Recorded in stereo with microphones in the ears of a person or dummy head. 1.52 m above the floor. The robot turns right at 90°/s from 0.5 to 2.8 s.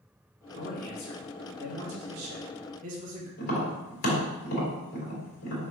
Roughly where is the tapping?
Left.